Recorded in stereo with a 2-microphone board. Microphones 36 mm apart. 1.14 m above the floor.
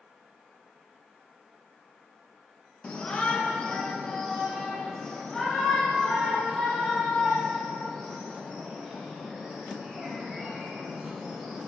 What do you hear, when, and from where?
2.8 s a shout: 35° left (ahead or behind), 1.0 m; by 11.7 s 10° left (ahead or behind), 6 m